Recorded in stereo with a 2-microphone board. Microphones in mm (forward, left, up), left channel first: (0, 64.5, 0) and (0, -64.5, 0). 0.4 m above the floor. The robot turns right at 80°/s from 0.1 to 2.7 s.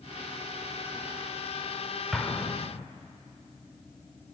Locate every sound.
2.1 s an explosion: centre (ahead or behind), 0.5 m; by 2.9 s 30° left (ahead or behind), 0.5 m